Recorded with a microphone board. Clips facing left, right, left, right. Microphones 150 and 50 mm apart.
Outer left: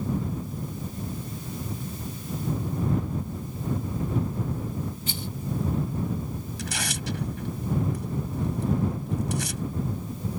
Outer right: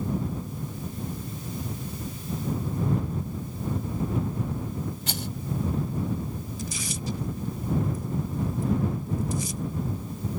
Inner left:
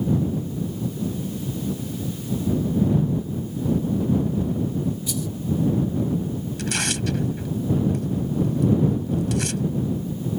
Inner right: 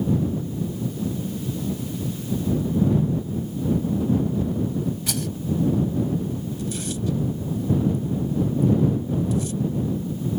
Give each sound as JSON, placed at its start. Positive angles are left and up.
{"t": 5.1, "sound": "a rattle", "side_deg": -75}
{"t": 6.6, "sound": "tearing paper", "side_deg": 80}